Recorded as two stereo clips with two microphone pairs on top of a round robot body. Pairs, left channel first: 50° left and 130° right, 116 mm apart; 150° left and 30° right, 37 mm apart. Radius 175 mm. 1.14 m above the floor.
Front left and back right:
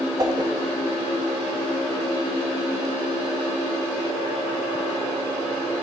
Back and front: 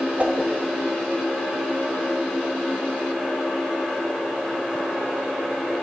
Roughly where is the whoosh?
Right.